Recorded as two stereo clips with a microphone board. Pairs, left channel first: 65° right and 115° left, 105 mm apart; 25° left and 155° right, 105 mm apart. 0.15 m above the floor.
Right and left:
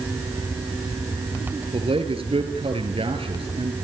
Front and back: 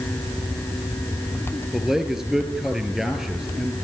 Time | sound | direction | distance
1.7 | a man speaking | 120° left | 3.5 m